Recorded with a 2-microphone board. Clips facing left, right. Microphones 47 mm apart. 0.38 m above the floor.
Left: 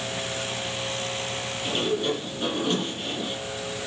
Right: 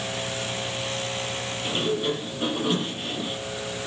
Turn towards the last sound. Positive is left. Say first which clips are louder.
# even
turn(degrees=-10)  # may be behind; listen again after turning